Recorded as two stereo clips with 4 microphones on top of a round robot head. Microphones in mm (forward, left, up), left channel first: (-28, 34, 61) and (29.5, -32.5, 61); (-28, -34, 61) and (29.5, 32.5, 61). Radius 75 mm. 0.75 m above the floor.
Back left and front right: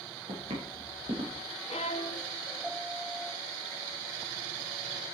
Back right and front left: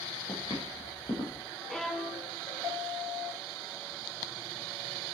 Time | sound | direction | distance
0.3 | footsteps | 70° right | 5 m
1.7 | a violin | 145° left | 0.5 m